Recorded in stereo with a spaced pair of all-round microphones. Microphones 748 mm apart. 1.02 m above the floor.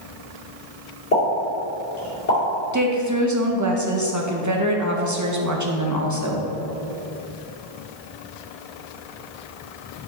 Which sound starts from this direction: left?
A pop, at 1.1 s.